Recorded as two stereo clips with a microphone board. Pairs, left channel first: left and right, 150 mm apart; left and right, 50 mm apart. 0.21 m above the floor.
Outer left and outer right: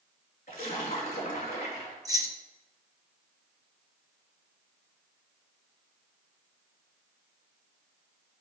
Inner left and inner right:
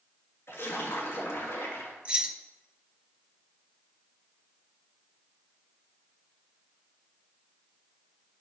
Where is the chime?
I don't hear a chime.